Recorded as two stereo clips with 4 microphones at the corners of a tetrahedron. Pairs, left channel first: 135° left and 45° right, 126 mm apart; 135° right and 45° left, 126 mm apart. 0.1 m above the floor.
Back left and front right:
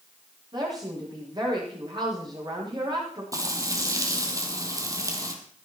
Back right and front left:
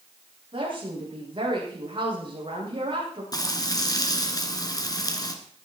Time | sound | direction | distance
0.5 | a woman speaking | 5° left | 8 m
3.3 | frying | 95° right | 2.0 m